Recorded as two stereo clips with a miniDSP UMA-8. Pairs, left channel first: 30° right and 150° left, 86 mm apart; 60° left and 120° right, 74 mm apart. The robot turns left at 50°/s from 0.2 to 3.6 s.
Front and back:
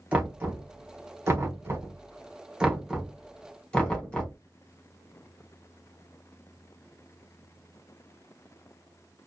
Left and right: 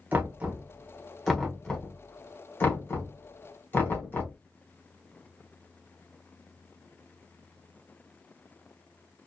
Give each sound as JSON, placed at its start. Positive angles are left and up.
{"t": 0.1, "sound": "knocking", "azimuth_deg": -155, "distance_m": 1.0}